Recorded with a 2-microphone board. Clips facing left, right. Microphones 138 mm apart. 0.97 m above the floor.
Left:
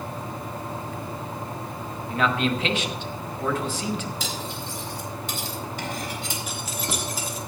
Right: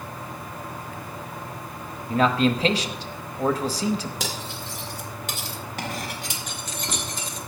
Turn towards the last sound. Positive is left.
turn(degrees=5)  # may be behind; listen again after turning